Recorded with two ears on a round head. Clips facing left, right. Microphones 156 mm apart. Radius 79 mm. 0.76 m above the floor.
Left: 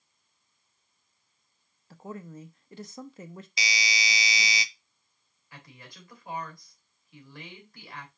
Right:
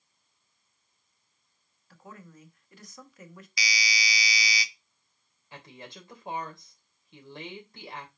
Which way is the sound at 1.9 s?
25° left (ahead or behind).